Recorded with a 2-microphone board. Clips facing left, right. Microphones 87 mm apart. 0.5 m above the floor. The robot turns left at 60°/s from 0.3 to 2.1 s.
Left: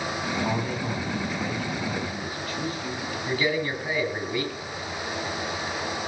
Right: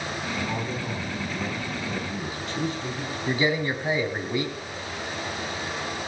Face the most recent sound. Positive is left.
turn(degrees=-25)  # may be behind; listen again after turning